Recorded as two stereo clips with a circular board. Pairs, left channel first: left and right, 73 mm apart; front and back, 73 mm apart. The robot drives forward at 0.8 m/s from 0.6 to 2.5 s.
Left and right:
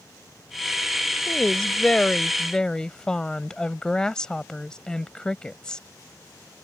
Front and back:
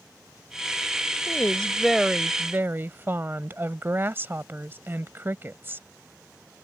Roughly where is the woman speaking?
Ahead.